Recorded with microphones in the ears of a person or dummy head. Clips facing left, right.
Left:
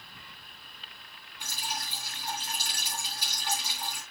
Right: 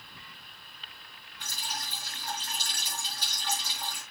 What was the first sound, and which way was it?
Dripping, 10° left (ahead or behind).